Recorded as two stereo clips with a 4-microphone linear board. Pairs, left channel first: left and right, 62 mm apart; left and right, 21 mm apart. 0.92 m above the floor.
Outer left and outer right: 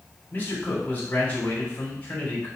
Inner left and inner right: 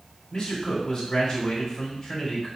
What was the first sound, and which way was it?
A man speaking, 30° left (ahead or behind).